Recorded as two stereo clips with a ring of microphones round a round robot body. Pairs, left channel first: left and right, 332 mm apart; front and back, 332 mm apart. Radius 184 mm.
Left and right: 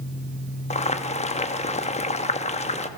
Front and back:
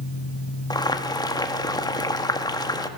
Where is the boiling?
60° left, 1.2 m.